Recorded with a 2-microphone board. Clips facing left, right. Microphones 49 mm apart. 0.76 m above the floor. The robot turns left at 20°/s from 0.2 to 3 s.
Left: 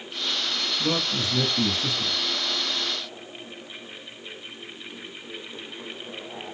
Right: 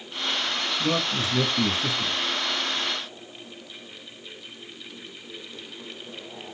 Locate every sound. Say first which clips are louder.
0.8 s a man speaking: right 1 dB; 5° left (ahead or behind), 1.0 m; by 2.2 s 15° right (ahead or behind), 1.0 m